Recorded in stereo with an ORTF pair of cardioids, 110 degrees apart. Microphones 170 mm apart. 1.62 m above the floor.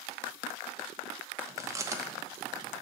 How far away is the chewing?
About 0.8 m.